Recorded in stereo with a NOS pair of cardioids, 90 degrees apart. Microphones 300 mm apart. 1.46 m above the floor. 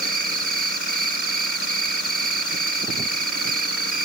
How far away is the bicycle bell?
No bicycle bell in this recording.